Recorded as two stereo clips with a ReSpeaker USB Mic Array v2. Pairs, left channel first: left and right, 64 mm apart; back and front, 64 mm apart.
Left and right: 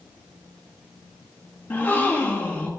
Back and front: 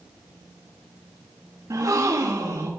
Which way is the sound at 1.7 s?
30° left.